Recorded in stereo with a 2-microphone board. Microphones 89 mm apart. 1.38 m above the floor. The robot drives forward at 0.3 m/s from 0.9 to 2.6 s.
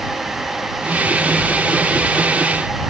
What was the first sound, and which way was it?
Only background noise.